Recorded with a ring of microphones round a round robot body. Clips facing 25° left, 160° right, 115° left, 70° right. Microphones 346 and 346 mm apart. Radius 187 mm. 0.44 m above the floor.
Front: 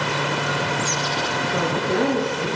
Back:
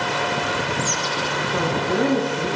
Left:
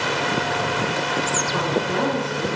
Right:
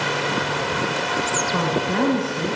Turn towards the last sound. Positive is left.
turn(degrees=-75)